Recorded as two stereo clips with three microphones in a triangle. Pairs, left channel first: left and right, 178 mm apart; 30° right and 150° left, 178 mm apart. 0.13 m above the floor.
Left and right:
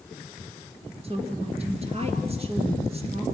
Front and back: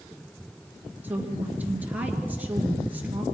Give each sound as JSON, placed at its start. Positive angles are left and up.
{"t": 1.0, "sound": "a woman speaking", "azimuth_deg": -130, "distance_m": 2.5}